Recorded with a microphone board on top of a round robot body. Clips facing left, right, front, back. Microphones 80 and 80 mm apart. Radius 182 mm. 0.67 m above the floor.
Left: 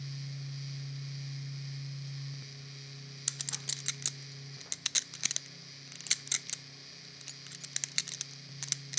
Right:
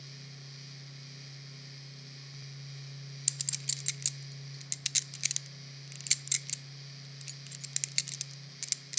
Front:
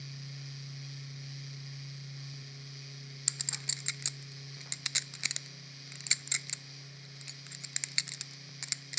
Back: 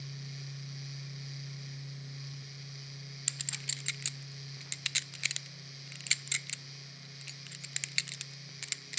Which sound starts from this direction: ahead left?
A clink, at 3.3 s.